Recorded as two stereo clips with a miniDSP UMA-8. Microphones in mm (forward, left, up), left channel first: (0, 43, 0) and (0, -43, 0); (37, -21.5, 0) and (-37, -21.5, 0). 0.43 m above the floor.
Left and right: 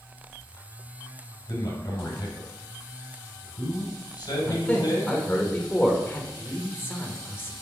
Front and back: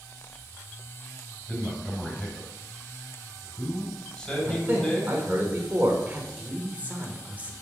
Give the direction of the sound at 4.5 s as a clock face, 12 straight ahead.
7 o'clock.